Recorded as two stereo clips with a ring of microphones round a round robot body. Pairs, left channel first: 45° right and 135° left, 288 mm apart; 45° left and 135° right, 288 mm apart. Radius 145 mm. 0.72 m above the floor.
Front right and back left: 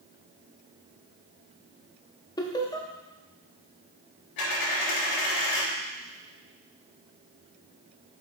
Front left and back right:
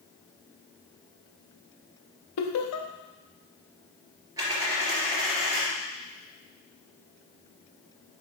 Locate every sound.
2.4 s laughter: 30° left, 0.8 m
4.4 s a dropped coin: 55° right, 3 m